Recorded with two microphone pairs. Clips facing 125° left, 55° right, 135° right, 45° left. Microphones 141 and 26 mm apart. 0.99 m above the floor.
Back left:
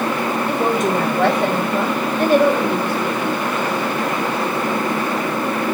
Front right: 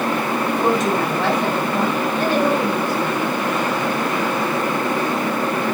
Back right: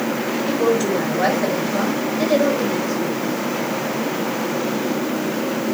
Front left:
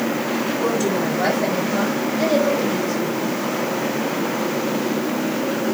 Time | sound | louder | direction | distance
0.5 | a woman speaking | even, back right 4 dB | 155° left | 4.5 m